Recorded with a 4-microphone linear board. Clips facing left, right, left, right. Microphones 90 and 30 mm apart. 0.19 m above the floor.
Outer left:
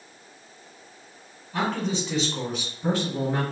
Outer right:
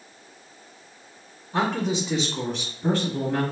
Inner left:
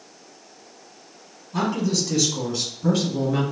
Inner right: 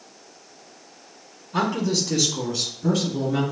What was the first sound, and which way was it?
A man speaking, 25° right (ahead or behind).